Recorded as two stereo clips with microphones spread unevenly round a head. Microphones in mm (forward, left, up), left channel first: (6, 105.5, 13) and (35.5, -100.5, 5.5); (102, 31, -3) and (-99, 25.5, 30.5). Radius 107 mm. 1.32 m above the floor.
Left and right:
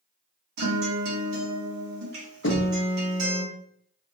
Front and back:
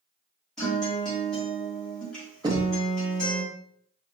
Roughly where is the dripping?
I don't hear dripping.